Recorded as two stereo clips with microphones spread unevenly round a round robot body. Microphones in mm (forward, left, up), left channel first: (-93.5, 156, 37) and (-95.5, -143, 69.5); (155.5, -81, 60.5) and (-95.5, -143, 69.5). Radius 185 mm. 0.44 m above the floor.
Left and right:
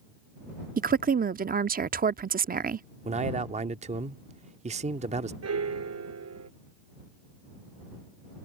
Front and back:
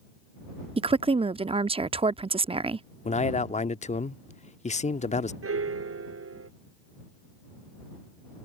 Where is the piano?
130° right.